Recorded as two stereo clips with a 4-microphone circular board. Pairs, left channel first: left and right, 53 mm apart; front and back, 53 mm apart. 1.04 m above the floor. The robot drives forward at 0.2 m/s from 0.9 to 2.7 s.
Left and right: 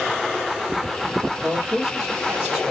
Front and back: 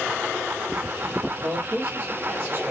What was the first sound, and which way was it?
A man speaking, 155° right.